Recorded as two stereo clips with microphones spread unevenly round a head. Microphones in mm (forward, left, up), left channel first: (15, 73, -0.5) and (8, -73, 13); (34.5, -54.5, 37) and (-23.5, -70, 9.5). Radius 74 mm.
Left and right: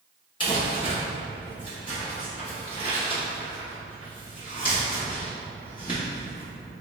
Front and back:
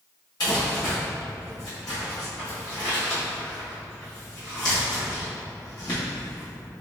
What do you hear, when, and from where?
0.4 s crumpling: 45° left, 1.4 m